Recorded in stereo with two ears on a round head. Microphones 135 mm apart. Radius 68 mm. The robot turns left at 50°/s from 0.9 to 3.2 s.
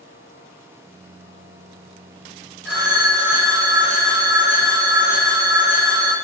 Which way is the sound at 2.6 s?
10° left (ahead or behind).